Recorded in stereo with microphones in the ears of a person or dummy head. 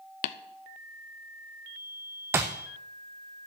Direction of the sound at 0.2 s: 45° left (ahead or behind).